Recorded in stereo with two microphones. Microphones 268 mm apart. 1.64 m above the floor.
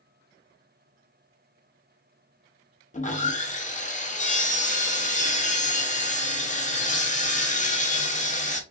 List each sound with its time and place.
2.9 s sawing: 30° left (ahead or behind), 0.6 m